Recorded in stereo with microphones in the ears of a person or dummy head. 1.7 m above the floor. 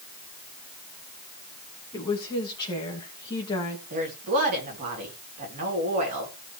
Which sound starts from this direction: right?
A woman speaking, at 3.9 s.